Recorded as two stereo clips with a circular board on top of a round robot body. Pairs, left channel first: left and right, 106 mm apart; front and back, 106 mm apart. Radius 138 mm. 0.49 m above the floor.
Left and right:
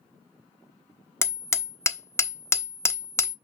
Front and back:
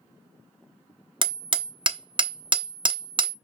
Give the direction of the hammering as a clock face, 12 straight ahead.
7 o'clock.